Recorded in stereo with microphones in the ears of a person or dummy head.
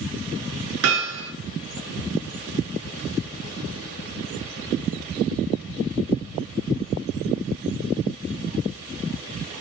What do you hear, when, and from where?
0.8 s hammering: 75° right (ahead or behind), 6 m